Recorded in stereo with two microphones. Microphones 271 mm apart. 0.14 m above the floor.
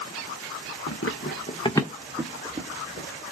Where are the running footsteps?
60° left (ahead or behind), 0.7 m; by 3.1 s 30° right (ahead or behind), 1.1 m.